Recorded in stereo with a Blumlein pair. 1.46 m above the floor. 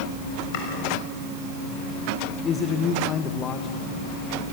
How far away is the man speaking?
About 1.4 m.